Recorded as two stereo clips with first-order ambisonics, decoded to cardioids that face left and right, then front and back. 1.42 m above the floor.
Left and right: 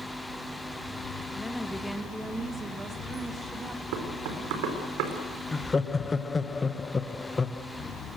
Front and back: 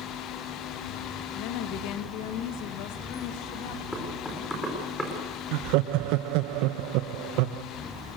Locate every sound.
1.4 s a woman speaking: 5° left, 2.0 m; by 3.8 s 25° right, 2.5 m
3.9 s knocking: 80° right, 4.5 m
5.5 s laughter: 170° left, 0.9 m